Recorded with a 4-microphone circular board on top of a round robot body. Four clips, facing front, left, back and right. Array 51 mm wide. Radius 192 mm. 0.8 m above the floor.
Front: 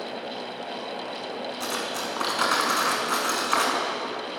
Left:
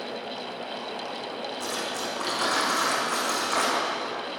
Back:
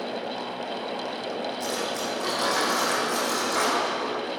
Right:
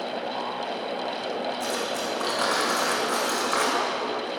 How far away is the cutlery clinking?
About 6 m.